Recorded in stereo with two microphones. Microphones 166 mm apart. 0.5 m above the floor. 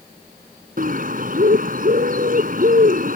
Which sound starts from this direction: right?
A bird, at 0.8 s.